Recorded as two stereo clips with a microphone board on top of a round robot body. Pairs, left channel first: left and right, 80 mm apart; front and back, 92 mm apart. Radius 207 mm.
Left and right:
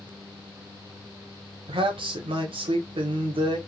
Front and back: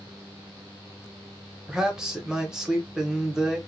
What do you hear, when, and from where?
1.7 s a man speaking: 95° right, 0.6 m